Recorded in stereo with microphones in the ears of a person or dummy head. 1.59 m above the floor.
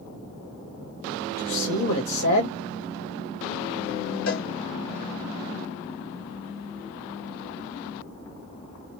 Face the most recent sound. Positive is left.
turn(degrees=75)  # may be behind; listen again after turning